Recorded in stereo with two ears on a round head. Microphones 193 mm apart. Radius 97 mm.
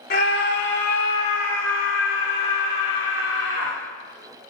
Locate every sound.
0.1 s a scream: 40° left (ahead or behind), 1.1 m; by 3.8 s 75° left (ahead or behind), 3 m